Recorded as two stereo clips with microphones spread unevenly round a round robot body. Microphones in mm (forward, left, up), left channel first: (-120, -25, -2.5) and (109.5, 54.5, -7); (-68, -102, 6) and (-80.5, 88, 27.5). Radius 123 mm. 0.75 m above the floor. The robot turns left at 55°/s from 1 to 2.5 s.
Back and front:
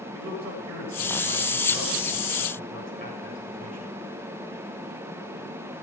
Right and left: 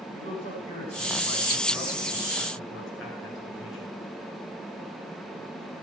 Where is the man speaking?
20° right, 8.5 m; by 3.9 s 100° right, 8.5 m.